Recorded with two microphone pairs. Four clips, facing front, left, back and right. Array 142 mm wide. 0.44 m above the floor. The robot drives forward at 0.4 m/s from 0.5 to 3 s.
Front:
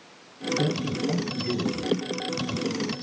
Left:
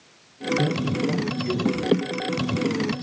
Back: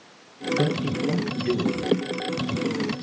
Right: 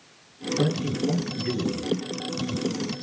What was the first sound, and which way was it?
A man speaking, 145° right.